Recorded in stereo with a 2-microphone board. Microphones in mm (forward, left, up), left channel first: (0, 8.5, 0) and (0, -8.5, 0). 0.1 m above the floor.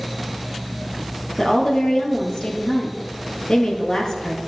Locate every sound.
1.4 s a woman speaking: 55° left (ahead or behind), 2.5 m